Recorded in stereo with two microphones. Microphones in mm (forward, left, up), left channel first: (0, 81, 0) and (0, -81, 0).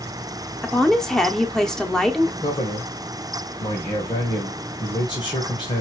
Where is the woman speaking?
5° left (ahead or behind), 0.9 m.